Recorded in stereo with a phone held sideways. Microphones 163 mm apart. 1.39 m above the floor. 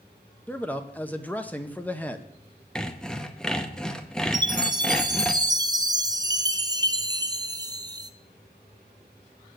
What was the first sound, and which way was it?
A man speaking, 10° left (ahead or behind).